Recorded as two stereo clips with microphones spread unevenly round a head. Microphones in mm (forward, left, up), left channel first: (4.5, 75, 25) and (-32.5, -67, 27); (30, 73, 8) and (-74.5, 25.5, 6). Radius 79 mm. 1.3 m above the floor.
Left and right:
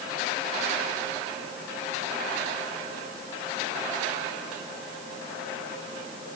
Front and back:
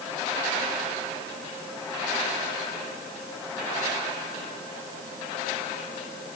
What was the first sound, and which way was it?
Only background noise.